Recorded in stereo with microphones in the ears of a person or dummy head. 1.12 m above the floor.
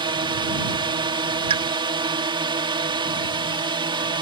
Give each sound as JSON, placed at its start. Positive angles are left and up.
{"t": 0.0, "sound": "a drone", "side_deg": -20}
{"t": 1.5, "sound": "a pop", "side_deg": -30}